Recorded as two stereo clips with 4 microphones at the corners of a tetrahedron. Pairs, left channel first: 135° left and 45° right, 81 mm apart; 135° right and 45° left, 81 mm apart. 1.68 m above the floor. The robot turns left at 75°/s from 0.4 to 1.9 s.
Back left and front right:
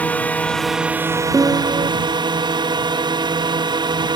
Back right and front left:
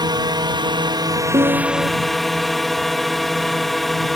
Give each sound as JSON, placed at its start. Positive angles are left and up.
{"t": 0.0, "sound": "a drone", "azimuth_deg": 65}
{"t": 1.3, "sound": "a piano", "azimuth_deg": 20}